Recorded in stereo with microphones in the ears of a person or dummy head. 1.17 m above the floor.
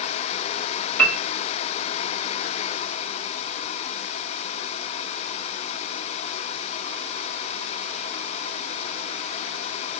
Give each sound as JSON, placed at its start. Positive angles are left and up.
{"t": 1.0, "sound": "a piano", "side_deg": 10, "distance_m": 0.7}